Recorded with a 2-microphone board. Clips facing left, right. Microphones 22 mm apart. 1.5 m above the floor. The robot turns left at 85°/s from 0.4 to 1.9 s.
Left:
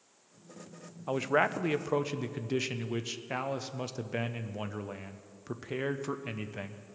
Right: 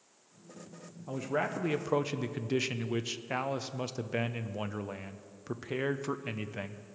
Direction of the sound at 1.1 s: 60° left.